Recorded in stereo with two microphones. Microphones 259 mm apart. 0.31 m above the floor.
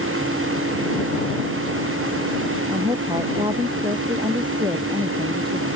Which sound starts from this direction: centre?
A woman speaking, at 2.7 s.